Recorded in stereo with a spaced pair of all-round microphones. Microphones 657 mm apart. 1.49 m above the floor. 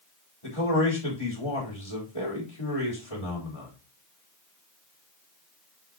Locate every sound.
0.4 s a man speaking: 55° left (ahead or behind), 4 m